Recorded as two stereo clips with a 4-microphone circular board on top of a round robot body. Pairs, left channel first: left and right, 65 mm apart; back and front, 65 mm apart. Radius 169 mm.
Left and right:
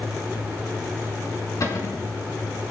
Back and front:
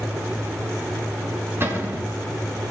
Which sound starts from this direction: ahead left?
A cupboard door, at 1.6 s.